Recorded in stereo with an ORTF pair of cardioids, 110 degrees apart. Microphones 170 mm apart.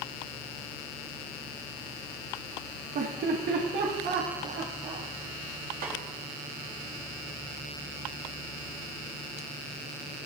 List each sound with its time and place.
3.0 s laughter: 60° right, 1.2 m; by 5.0 s 70° right, 2.5 m
5.8 s a snare drum: 70° right, 2.5 m